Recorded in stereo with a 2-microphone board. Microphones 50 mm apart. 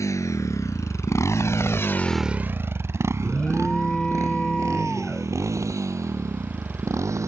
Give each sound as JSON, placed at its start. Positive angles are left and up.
{"t": 0.0, "sound": "a motorcycle", "side_deg": 85}
{"t": 3.2, "sound": "an alarm", "side_deg": 15}